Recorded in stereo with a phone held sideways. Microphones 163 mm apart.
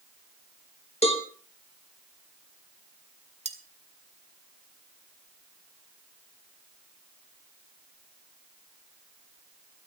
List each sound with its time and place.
1.0 s a cowbell: 40° left (ahead or behind), 2.5 m
3.5 s cutlery clinking: 45° right (ahead or behind), 2.0 m